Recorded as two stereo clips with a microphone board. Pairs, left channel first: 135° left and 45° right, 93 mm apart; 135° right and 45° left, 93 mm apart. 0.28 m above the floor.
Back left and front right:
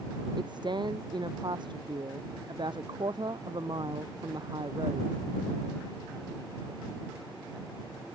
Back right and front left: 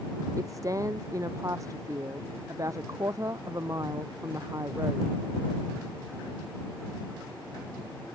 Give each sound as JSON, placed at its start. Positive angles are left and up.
{"t": 0.4, "sound": "a woman speaking", "azimuth_deg": -10}